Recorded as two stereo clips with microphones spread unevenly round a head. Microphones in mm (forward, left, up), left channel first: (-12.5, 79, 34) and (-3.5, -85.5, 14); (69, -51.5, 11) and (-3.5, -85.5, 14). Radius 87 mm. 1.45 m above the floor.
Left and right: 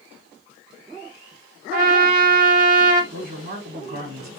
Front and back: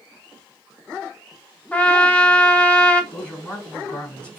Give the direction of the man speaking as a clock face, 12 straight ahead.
2 o'clock.